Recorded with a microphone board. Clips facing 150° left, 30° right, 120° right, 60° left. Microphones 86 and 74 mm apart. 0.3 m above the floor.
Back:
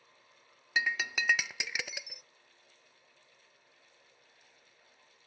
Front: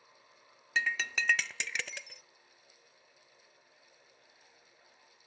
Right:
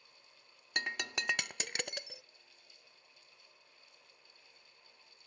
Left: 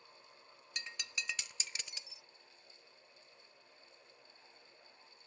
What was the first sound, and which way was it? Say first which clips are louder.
Breaking glass: even, right 8 dB; 130° right.